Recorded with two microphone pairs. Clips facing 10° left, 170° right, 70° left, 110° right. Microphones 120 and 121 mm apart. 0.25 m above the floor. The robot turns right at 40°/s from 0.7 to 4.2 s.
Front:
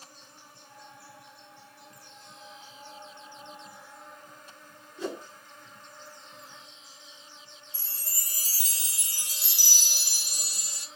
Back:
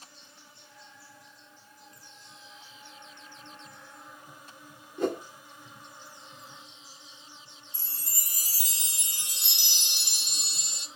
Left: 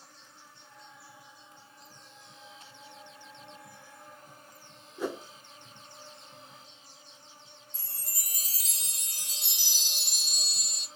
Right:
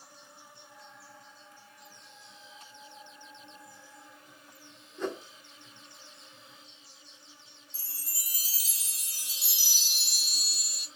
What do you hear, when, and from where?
0.0 s an insect: 30° right, 1.0 m; by 11.0 s 110° left, 1.0 m
5.0 s a whoosh: 155° left, 0.7 m
7.7 s a chime: 175° left, 0.9 m